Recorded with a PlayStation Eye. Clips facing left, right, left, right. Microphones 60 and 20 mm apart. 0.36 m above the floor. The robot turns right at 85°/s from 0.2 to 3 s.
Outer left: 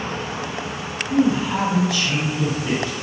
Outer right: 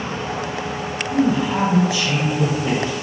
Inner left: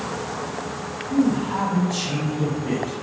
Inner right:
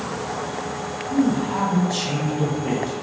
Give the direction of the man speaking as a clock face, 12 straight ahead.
7 o'clock.